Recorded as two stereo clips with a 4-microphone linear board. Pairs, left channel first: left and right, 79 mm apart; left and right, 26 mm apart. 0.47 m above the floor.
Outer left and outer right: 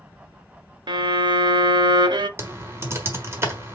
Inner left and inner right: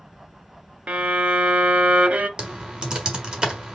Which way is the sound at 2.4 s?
35° right (ahead or behind).